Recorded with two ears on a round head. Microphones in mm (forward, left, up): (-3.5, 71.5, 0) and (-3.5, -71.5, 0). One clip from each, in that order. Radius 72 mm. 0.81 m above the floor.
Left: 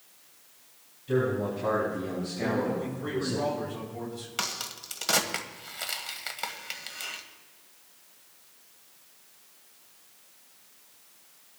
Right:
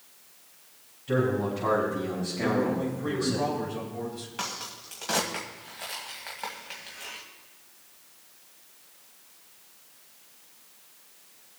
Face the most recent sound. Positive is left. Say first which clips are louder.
# left 3 dB
turn(degrees=80)